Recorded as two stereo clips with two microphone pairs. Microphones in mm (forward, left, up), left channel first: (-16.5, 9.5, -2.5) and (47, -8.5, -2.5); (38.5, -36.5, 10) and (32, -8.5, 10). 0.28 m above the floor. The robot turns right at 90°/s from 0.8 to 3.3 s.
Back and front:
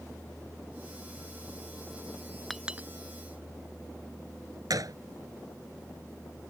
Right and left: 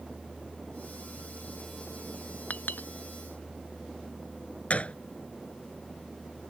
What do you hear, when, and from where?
2.5 s a clink: 110° right; by 2.9 s 75° right
4.7 s a gunshot: 35° right